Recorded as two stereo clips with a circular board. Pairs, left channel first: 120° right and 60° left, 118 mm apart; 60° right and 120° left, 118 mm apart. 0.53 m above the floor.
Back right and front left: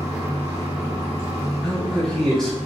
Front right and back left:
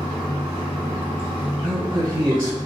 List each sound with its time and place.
0.0 s running water: 5° right, 1.9 m
1.6 s a man speaking: 160° left, 0.9 m